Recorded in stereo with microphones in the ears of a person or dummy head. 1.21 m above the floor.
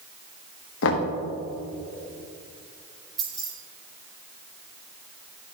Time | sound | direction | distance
0.8 | knocking | 70° left (ahead or behind) | 1.0 m
3.2 | keys jangling | centre (ahead or behind) | 2.5 m